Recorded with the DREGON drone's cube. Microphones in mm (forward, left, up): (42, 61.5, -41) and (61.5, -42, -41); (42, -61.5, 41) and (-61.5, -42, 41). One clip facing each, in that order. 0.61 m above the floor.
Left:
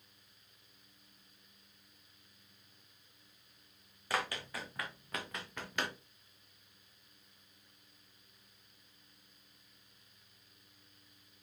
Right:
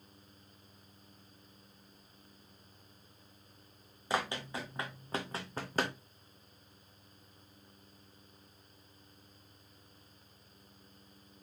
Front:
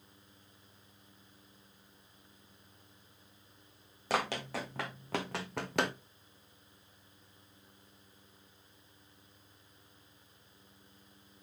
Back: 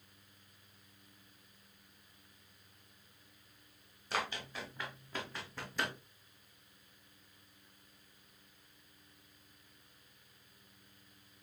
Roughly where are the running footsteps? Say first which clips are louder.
Right 3 dB, front 6 dB; ahead.